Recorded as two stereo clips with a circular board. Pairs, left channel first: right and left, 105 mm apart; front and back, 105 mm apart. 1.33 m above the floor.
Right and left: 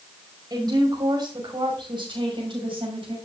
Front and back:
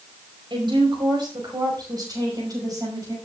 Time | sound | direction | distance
0.5 | a woman speaking | 140° left | 5.5 m